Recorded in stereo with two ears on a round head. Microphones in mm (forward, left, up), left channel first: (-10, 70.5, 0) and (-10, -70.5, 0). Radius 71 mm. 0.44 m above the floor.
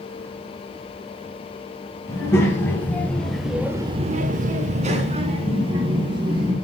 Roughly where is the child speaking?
Centre.